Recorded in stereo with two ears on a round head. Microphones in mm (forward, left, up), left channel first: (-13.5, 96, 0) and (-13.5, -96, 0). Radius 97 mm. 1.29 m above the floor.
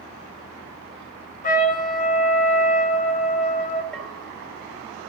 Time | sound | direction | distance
1.4 | a trumpet | 40° left (ahead or behind) | 1.2 m
3.9 | a bell | 5° left (ahead or behind) | 1.9 m